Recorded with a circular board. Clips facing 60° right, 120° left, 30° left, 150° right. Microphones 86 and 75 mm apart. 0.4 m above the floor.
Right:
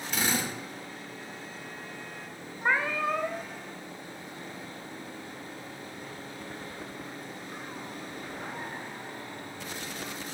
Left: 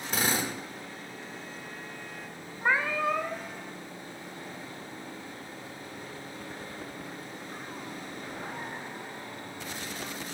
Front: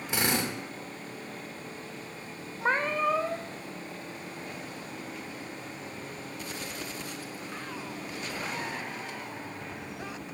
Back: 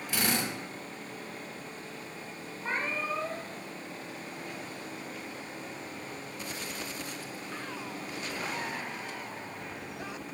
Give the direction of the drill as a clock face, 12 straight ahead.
9 o'clock.